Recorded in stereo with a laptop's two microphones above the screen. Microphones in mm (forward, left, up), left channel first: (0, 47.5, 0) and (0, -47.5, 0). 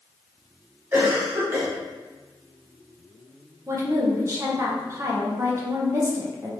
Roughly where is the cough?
Centre.